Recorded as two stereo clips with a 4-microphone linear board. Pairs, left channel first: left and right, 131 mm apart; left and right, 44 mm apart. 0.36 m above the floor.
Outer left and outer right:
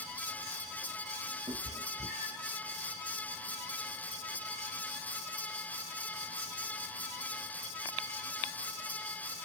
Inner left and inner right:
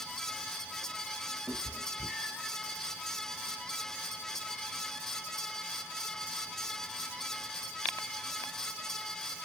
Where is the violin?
No violin in this recording.